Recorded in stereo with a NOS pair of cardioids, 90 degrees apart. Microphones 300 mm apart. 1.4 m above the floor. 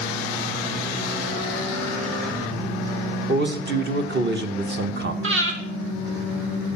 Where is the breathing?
45° right, 2.5 m.